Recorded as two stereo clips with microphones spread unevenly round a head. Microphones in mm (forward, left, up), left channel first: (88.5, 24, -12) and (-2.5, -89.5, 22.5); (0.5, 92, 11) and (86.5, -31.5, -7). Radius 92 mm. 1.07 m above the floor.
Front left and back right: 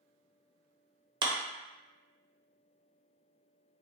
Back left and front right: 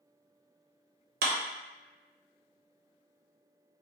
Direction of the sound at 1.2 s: 65° right.